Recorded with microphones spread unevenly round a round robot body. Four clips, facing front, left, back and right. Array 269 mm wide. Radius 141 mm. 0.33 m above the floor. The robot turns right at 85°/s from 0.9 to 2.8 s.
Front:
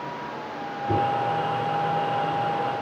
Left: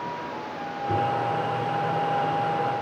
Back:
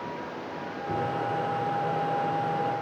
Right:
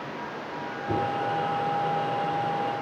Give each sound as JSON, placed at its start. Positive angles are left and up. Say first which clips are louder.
{"t": 0.9, "sound": "a microwave", "louder": "left 2 dB, front 7 dB", "azimuth_deg": -10, "distance_m": 1.3}